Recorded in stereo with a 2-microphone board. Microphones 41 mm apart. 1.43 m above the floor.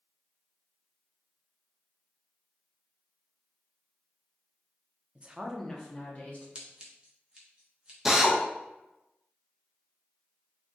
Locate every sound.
5.2 s a woman speaking: 30° right (ahead or behind), 0.5 m; by 6.5 s 45° left (ahead or behind), 1.0 m
6.5 s scissors: 20° right (ahead or behind), 0.8 m
8.1 s a drill: 10° right (ahead or behind), 0.5 m